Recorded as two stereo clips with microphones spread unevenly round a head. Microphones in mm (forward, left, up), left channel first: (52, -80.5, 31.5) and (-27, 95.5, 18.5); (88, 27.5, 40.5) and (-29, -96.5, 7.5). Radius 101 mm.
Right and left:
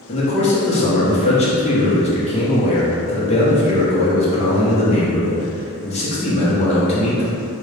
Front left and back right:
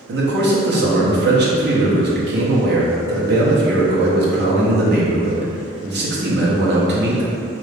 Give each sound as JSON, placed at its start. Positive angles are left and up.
{"t": 0.1, "sound": "a man speaking", "azimuth_deg": -125, "distance_m": 1.0}